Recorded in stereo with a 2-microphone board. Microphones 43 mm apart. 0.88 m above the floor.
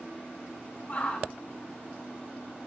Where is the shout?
30° left (ahead or behind), 3.5 m.